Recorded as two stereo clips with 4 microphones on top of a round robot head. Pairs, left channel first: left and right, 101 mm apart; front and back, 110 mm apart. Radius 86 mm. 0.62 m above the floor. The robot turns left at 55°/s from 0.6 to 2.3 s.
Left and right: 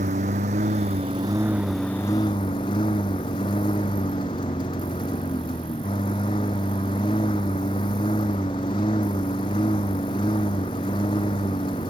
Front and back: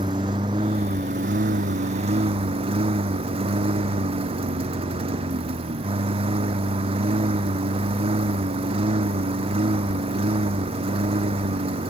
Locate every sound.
0.0 s a lawn mower: 120° right; by 11.9 s 150° left